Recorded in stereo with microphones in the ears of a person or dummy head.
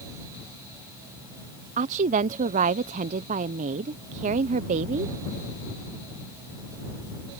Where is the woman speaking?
45° right (ahead or behind).